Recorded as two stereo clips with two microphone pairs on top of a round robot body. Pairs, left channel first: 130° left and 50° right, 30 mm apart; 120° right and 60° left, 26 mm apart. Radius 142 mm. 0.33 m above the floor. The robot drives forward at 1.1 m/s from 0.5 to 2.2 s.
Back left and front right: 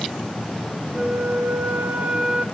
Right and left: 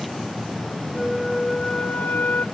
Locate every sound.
0.9 s a flute: 20° right, 1.2 m; by 2.5 s 120° right, 0.5 m